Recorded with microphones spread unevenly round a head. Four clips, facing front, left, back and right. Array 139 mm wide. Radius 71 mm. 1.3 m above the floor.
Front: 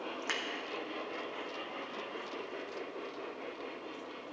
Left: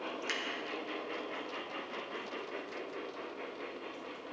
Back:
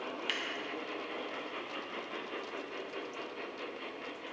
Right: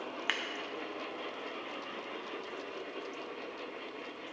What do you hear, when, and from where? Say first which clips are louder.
0.3 s scissors: right 5 dB, front 5 dB; 65° right, 0.9 m